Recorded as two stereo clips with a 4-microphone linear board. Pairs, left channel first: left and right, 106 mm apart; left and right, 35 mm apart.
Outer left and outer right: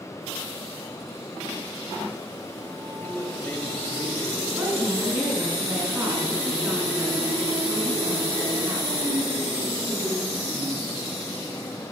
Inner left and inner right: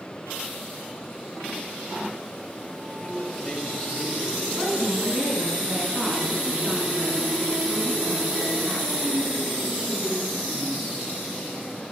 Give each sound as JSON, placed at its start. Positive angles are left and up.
{"t": 3.0, "sound": "a man speaking", "side_deg": 20, "distance_m": 2.0}
{"t": 4.6, "sound": "a woman speaking", "side_deg": -15, "distance_m": 4.5}